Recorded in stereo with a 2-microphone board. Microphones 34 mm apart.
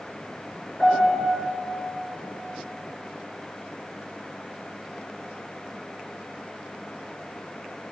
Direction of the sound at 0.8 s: 20° left (ahead or behind).